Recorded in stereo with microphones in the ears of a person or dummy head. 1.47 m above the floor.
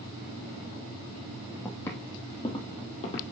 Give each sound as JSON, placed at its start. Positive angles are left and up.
{"t": 1.6, "sound": "footsteps", "side_deg": 15, "distance_m": 3.0}